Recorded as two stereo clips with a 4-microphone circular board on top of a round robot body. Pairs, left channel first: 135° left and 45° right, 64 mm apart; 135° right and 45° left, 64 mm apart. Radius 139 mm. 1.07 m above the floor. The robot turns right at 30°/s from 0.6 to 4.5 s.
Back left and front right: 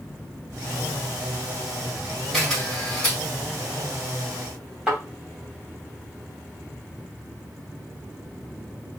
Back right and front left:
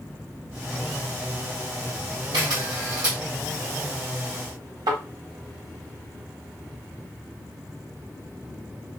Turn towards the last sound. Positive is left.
turn(degrees=35)